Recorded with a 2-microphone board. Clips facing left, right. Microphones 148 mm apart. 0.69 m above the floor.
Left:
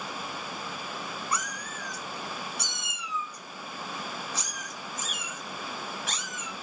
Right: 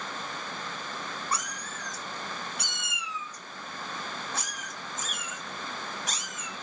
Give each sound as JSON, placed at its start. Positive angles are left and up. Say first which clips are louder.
{"t": 1.3, "sound": "a cat meowing", "louder": "even", "side_deg": -30, "distance_m": 1.5}